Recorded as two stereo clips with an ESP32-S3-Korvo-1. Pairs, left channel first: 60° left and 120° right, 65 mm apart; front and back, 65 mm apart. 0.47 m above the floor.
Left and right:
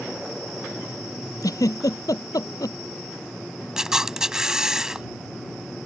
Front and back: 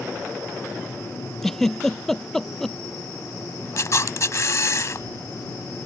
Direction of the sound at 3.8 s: 40° right.